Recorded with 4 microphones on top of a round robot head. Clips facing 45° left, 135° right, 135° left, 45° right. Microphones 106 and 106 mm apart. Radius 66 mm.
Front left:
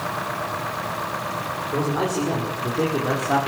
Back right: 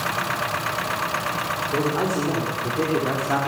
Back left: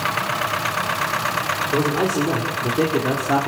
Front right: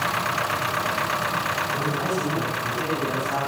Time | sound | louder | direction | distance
1.7 | a man speaking | even, back left 9 dB | 135° left | 6 m